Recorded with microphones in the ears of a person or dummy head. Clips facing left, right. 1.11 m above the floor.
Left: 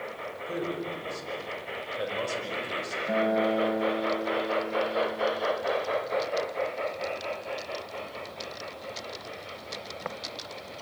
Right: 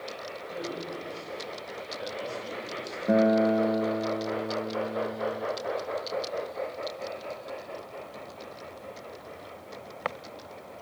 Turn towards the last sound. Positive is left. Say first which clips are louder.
# right 4 dB
turn(degrees=-50)  # may be behind; listen again after turning